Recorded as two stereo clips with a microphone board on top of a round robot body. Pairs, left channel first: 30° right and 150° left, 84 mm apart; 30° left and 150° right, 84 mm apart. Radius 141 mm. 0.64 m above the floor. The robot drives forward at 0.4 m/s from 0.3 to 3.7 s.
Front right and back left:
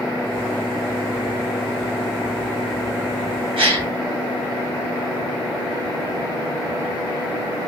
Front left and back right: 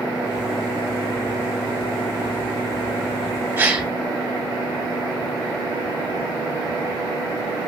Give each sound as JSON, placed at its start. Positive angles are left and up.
{"t": 3.6, "sound": "a gasp", "azimuth_deg": 140, "distance_m": 3.0}